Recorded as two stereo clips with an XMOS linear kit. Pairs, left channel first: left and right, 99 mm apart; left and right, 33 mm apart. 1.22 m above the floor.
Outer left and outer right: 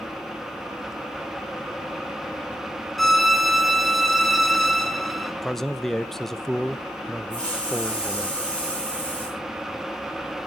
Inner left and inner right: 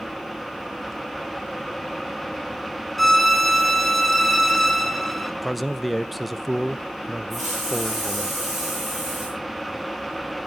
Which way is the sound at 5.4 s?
5° left (ahead or behind).